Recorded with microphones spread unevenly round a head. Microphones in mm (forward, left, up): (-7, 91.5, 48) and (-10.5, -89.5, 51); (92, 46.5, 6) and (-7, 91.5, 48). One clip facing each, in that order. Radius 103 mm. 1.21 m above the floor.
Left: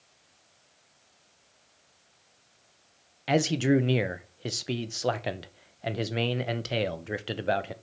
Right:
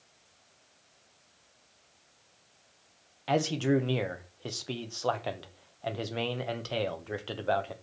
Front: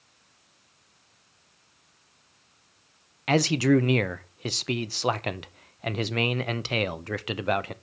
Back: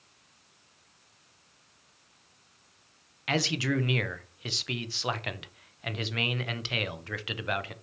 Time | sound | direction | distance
3.3 | a man speaking | 15° left | 0.7 m